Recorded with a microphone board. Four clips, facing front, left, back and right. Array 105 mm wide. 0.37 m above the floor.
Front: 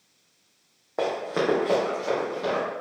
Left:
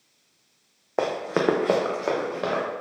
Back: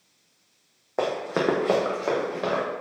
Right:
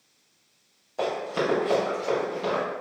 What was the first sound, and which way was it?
Running footsteps, 100° left.